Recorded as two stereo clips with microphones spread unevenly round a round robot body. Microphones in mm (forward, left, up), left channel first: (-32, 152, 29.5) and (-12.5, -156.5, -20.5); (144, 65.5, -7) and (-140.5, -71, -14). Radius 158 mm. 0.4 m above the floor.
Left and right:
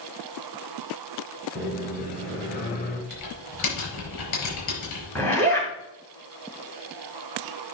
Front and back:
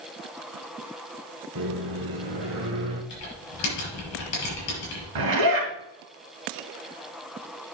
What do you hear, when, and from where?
1.6 s a microwave: 155° left, 2 m
3.1 s typing on a keyboard: 70° left, 5.5 m
5.2 s a zipper: straight behind, 4 m